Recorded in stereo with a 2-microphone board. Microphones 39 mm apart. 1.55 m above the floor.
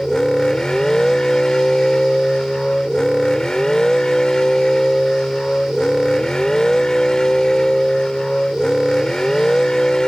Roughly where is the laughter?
No laughter in this recording.